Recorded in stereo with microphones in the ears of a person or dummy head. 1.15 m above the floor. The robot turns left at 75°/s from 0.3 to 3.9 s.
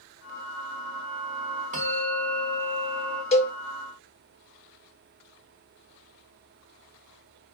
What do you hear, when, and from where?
1.7 s a bell: 40° right, 1.9 m; by 3.2 s 150° right, 1.9 m
3.3 s a cowbell: 30° left (ahead or behind), 0.6 m; by 3.5 s 40° left (ahead or behind), 0.6 m